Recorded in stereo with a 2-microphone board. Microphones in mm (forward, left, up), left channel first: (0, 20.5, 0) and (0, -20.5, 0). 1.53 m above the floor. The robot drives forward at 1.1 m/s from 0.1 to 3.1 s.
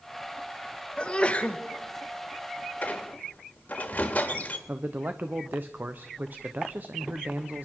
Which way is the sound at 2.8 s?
40° left (ahead or behind).